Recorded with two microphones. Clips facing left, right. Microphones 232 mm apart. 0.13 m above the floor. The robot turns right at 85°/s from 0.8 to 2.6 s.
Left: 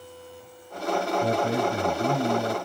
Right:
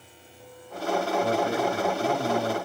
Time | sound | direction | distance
1.2 | a man speaking | 45° left | 1.2 m